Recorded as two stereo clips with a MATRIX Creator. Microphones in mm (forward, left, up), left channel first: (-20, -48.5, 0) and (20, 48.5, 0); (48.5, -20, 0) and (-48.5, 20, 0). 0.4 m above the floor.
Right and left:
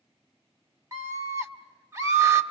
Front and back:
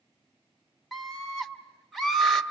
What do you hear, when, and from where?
0.9 s a scream: 65° left, 1.5 m